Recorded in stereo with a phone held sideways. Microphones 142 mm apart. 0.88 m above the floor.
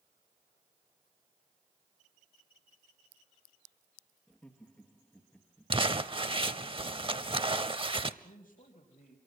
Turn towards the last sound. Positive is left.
turn(degrees=75)  # may be behind; listen again after turning